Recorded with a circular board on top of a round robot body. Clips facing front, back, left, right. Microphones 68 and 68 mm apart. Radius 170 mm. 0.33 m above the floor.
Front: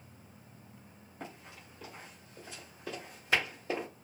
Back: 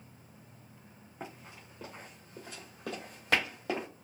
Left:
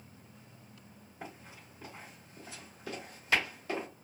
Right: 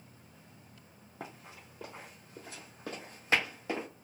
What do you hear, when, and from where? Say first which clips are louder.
1.2 s running footsteps: back 1 dB, right 1 dB; 105° right, 1.4 m; by 3.9 s 165° right, 1.5 m